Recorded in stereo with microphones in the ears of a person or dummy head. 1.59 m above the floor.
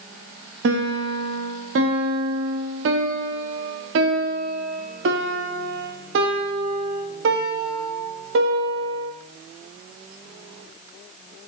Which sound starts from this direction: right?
A piano, at 0.6 s.